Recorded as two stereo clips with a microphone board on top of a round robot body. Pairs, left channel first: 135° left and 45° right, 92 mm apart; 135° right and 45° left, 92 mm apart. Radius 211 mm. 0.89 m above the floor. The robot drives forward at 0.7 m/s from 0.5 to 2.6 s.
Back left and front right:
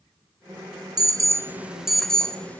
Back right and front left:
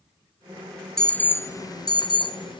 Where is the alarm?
55° right, 0.9 m; by 2.6 s 155° right, 1.2 m.